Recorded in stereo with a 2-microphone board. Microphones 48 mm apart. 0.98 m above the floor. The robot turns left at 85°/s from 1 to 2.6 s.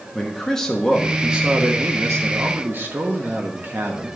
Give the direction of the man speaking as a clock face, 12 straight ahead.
12 o'clock.